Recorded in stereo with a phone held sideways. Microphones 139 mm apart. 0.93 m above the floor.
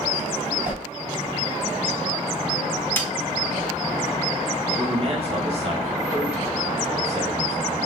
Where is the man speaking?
45° right (ahead or behind), 1.2 m.